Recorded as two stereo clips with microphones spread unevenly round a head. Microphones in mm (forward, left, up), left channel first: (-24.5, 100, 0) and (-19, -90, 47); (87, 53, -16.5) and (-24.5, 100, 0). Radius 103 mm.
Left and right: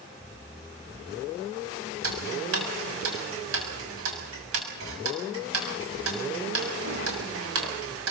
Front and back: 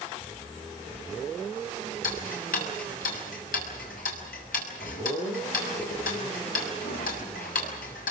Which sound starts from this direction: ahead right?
Ticking, at 2.0 s.